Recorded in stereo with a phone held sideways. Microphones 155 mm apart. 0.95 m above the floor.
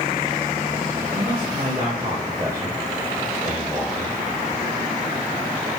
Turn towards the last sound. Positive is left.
turn(degrees=0)  # may be behind; listen again after turning